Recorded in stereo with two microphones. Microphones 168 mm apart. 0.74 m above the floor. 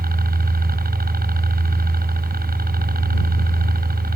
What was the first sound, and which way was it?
A helicopter, 70° right (ahead or behind).